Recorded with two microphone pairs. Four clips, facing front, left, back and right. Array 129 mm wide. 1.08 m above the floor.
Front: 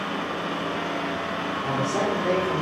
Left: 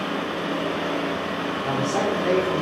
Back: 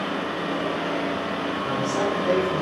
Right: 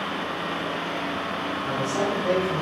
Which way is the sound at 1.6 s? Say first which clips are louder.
Left 2 dB, even; 60° left.